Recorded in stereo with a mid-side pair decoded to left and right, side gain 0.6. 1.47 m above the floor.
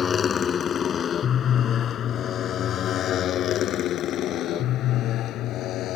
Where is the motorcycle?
35° left; by 6.0 s 60° left.